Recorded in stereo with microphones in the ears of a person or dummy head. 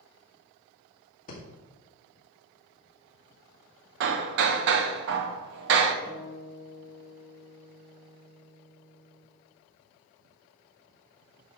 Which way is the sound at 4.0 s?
60° right (ahead or behind).